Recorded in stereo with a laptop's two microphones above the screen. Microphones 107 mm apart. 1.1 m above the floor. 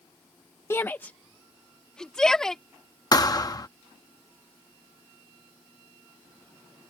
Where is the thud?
35° left (ahead or behind).